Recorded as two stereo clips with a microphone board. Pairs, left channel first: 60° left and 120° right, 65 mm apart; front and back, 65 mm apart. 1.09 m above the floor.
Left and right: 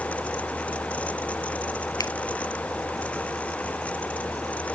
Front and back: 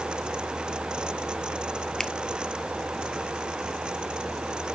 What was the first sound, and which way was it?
A finger snap, 85° left.